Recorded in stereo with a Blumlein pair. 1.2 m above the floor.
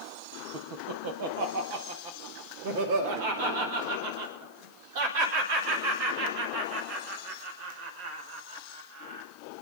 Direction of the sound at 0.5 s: 50° right.